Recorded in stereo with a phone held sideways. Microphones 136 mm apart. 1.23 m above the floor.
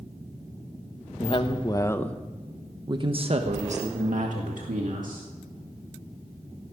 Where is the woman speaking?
45° left (ahead or behind), 1.4 m; by 5.3 s 75° right (ahead or behind), 2.5 m.